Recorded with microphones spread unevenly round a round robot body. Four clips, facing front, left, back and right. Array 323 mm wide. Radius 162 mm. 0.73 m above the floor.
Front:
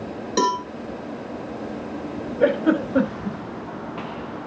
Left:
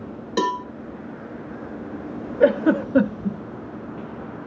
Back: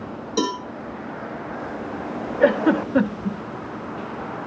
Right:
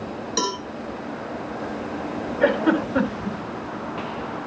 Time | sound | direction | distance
0.4 | a cowbell | 25° left | 3 m
2.4 | a giggle | 115° left | 1.7 m